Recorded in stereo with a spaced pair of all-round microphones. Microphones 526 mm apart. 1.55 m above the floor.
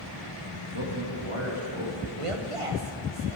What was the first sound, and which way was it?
A man speaking, 70° right (ahead or behind).